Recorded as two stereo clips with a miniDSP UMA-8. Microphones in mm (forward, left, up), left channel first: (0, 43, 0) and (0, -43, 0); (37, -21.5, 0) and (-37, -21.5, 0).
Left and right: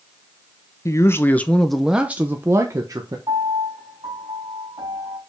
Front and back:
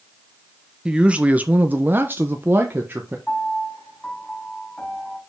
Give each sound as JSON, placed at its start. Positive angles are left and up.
{"t": 0.8, "sound": "a man speaking", "azimuth_deg": 110, "distance_m": 0.8}
{"t": 3.3, "sound": "a piano", "azimuth_deg": -75, "distance_m": 4.0}